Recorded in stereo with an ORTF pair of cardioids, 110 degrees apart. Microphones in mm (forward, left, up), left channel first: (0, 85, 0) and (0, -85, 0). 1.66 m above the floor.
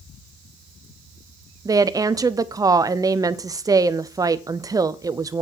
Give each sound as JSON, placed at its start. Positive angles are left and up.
{"t": 1.6, "sound": "a woman speaking", "azimuth_deg": -20, "distance_m": 0.6}